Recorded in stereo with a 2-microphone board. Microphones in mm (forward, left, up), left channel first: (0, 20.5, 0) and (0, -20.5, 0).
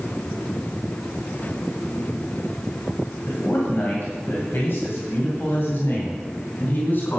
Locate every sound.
3.3 s a man speaking: 50° left (ahead or behind), 2.5 m; by 7.2 s 45° left (ahead or behind), 3.5 m